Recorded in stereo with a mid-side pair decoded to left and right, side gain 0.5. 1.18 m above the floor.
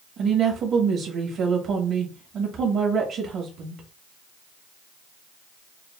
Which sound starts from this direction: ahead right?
A woman speaking, at 0.2 s.